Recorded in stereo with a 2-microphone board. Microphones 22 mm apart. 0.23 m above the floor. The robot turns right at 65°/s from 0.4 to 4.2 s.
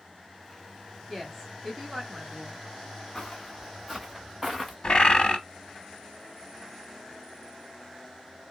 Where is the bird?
45° left (ahead or behind), 0.6 m.